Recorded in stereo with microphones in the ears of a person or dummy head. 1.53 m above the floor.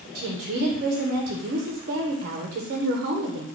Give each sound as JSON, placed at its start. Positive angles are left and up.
{"t": 0.1, "sound": "a woman speaking", "side_deg": -50, "distance_m": 0.6}